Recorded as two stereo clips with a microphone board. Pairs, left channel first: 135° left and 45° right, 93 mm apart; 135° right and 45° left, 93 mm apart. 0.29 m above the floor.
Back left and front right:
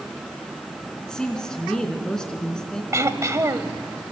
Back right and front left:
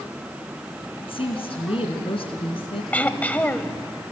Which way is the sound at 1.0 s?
140° right.